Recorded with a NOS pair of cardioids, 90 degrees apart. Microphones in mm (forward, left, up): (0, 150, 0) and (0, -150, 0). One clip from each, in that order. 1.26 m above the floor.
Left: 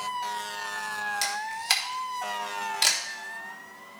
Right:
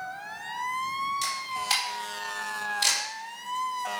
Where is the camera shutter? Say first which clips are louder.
Left 1 dB; 50° left, 3.5 m.